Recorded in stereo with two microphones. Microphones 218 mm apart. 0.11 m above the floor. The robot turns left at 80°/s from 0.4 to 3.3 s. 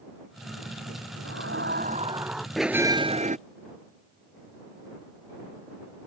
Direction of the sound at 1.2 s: 90° right.